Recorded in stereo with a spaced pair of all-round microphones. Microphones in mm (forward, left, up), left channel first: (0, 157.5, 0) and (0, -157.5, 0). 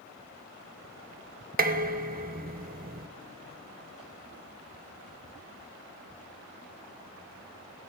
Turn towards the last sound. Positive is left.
turn(degrees=-30)  # may be behind; listen again after turning